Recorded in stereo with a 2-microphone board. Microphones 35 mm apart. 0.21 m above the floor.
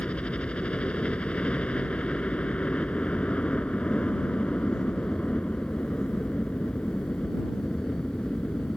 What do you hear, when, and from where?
0.0 s a helicopter: 40° left (ahead or behind)